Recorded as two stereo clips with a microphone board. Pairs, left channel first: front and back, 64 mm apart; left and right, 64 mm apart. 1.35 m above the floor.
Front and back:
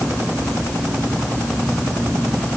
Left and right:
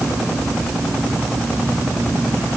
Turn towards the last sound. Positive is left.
No sound to turn to.